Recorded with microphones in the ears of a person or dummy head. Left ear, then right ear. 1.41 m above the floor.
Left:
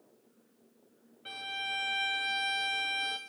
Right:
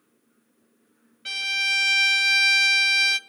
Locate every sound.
1.2 s a violin: 50° right (ahead or behind), 0.6 m